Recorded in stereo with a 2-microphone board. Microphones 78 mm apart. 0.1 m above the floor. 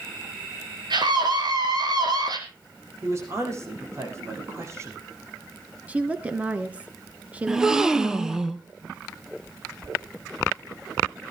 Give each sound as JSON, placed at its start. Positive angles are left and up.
{"t": 0.9, "sound": "a scream", "side_deg": -65, "distance_m": 5.0}
{"t": 3.0, "sound": "a man speaking", "side_deg": -35, "distance_m": 6.5}
{"t": 5.9, "sound": "a woman speaking", "side_deg": -20, "distance_m": 1.1}
{"t": 7.5, "sound": "a gasp", "side_deg": -10, "distance_m": 0.9}